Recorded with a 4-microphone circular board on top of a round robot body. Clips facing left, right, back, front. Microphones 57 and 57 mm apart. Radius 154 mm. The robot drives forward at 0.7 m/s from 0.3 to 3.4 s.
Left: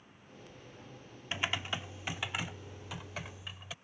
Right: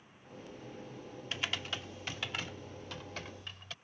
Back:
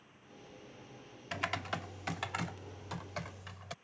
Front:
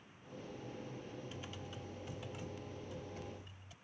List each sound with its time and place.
1.3 s typing on a keyboard: 160° left; by 3.7 s 170° left